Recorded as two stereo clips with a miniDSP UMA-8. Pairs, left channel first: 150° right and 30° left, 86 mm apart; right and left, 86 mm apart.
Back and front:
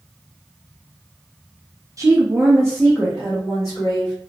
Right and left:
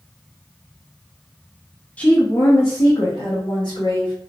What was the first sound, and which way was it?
A woman speaking, 15° right.